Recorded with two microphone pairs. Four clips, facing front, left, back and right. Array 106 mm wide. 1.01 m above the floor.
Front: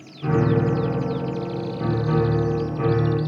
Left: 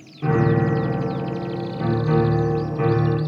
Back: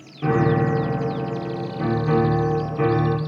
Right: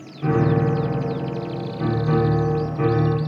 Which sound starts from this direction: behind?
A piano, at 0.2 s.